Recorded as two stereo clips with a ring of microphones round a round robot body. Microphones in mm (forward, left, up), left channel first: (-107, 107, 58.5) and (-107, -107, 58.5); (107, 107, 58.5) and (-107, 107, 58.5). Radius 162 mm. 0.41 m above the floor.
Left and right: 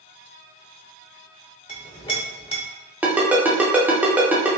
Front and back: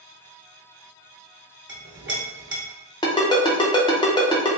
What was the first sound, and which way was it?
A clink, 155° left.